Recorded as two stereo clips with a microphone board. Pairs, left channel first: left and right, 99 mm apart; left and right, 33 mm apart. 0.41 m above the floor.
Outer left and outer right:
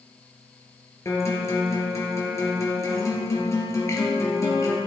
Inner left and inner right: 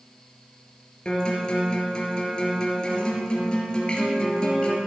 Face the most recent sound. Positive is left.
turn(degrees=30)  # may be behind; listen again after turning